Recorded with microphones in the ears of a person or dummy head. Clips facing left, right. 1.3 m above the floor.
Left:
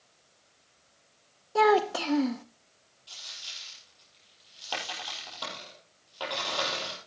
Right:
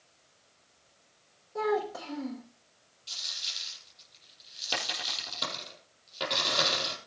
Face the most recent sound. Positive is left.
turn(degrees=-25)  # may be behind; listen again after turning